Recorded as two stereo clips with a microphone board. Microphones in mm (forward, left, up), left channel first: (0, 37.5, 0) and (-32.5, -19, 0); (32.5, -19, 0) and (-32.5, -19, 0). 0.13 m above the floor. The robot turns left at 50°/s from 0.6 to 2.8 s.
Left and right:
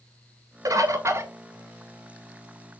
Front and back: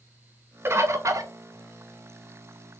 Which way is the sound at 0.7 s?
135° right.